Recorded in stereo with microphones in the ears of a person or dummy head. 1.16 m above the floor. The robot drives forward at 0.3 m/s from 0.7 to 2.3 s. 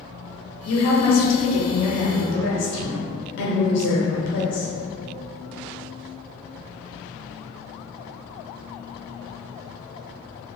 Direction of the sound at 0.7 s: 70° left (ahead or behind).